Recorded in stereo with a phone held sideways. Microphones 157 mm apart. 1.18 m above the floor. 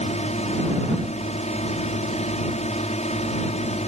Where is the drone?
45° left (ahead or behind).